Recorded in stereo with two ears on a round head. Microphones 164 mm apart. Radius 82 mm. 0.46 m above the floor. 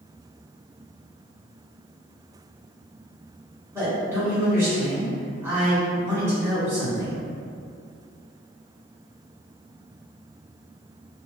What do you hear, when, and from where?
3.7 s a man speaking: 15° right (ahead or behind), 1.9 m